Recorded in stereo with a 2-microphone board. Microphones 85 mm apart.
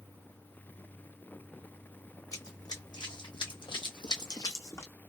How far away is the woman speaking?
No woman speaking in this recording.